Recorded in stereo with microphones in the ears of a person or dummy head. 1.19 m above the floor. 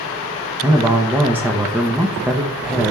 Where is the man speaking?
5° right (ahead or behind), 0.9 m.